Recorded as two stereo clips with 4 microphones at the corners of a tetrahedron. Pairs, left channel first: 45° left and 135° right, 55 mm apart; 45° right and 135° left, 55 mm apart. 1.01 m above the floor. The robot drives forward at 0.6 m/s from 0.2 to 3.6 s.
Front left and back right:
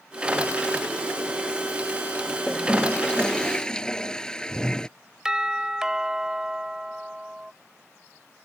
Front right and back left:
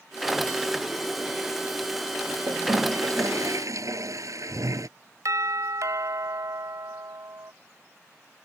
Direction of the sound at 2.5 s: 120° left.